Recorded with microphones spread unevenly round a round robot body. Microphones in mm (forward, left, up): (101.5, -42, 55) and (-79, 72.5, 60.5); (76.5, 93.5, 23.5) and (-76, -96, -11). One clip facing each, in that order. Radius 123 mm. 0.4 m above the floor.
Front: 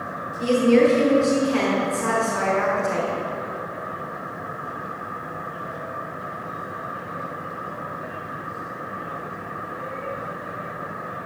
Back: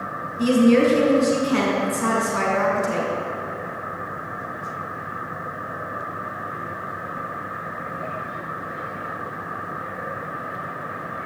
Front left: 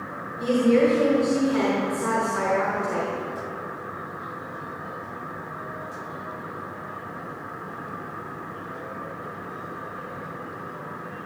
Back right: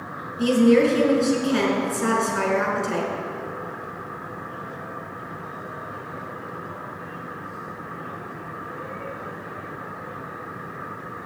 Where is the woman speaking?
170° right, 5.5 m.